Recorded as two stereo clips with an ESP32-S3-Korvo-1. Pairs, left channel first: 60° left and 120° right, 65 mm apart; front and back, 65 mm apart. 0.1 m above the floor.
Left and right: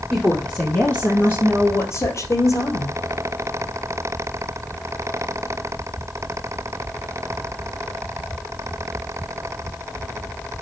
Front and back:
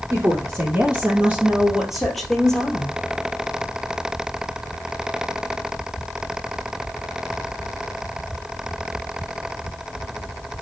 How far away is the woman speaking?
About 2.5 m.